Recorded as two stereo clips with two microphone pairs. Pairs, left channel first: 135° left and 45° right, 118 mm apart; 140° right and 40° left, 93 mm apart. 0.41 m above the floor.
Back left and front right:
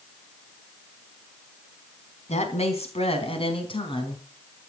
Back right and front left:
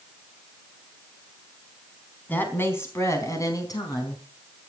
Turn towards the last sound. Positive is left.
turn(degrees=180)